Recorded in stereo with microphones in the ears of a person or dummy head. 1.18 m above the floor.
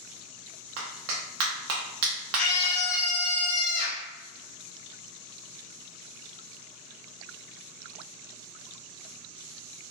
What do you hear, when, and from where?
0.8 s a clap: 75° right (ahead or behind), 0.9 m
2.4 s a scream: 75° left (ahead or behind), 0.6 m